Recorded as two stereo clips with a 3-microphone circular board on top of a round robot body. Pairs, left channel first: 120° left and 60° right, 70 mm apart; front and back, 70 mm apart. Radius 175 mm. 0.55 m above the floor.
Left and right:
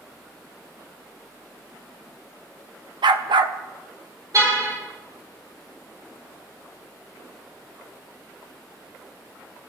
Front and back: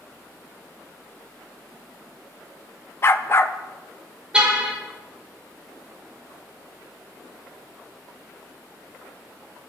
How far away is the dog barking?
About 0.6 m.